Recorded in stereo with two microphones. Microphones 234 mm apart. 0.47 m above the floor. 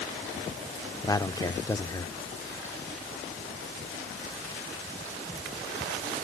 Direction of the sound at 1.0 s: 15° left (ahead or behind).